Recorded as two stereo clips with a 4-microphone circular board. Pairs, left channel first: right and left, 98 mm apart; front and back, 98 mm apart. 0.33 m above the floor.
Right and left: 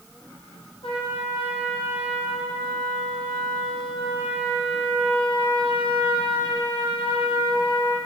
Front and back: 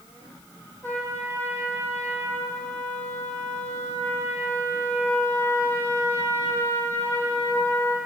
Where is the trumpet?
65° right, 7 m.